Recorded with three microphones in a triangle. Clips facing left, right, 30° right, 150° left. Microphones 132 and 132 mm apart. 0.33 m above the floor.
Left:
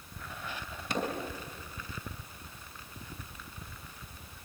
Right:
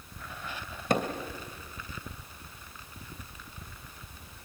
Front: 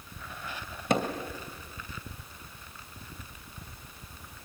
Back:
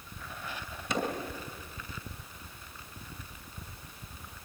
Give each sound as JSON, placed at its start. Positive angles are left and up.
{"t": 0.9, "sound": "hammering", "azimuth_deg": -55, "distance_m": 2.5}